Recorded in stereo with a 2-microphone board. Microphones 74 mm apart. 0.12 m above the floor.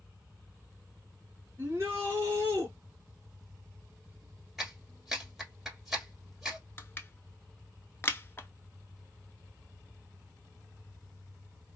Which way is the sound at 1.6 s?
35° right (ahead or behind).